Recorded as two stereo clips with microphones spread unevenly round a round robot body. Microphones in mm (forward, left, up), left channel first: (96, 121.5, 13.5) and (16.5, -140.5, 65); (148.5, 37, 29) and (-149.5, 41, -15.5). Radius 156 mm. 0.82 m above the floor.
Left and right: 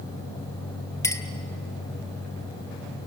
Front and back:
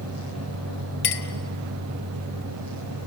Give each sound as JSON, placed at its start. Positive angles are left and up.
{"t": 1.0, "sound": "a clink", "azimuth_deg": -10, "distance_m": 1.7}